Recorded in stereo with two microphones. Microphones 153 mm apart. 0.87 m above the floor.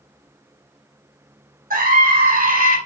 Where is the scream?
70° right (ahead or behind), 3.5 m.